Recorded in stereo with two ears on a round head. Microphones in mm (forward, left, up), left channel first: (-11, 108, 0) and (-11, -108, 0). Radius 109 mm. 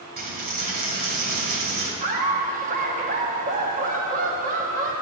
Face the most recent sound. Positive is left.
turn(degrees=-35)  # may be behind; listen again after turning